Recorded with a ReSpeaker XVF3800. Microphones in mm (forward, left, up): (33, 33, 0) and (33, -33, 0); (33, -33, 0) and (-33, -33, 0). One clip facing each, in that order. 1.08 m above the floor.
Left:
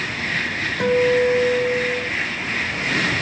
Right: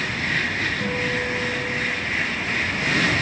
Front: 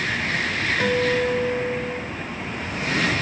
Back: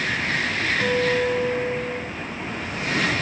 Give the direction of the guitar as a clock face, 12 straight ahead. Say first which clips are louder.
Left 8 dB, even; 10 o'clock.